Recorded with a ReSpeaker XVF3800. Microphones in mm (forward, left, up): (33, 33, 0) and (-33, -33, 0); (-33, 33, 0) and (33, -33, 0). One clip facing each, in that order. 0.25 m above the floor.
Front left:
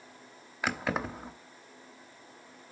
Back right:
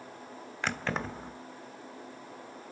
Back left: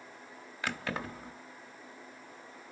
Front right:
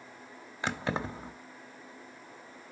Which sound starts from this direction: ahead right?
Keys jangling, at 0.6 s.